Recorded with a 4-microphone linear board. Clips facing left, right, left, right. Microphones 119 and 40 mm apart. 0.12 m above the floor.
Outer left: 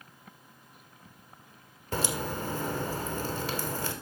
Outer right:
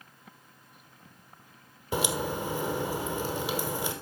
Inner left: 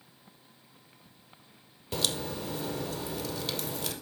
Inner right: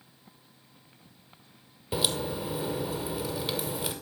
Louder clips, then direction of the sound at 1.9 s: Outer right 2 dB, inner right 3 dB; 10° right (ahead or behind).